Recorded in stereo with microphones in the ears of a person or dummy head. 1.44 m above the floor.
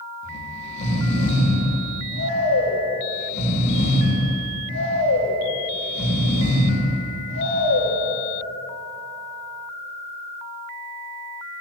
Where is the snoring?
35° left (ahead or behind), 1.3 m.